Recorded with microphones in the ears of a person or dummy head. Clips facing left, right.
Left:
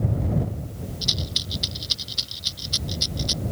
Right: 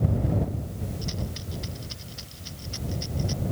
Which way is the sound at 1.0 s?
50° left (ahead or behind).